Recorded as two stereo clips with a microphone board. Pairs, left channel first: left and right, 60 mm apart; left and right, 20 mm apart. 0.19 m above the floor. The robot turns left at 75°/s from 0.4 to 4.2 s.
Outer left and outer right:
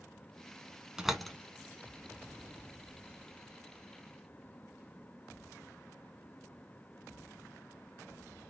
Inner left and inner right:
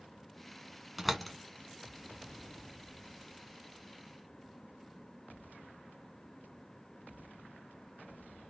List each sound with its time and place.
1.0 s a door slam: 15° right (ahead or behind), 1.1 m; by 1.4 s 10° left (ahead or behind), 1.1 m